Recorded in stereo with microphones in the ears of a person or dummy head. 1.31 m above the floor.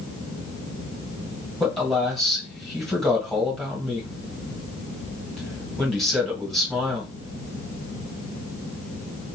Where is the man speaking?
5° left (ahead or behind), 1.6 m.